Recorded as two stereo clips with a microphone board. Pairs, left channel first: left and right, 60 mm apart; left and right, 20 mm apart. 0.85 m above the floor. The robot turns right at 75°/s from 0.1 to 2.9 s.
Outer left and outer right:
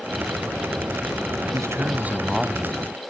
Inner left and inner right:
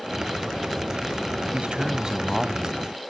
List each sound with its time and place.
1.5 s a man speaking: 70° right; by 2.8 s 25° left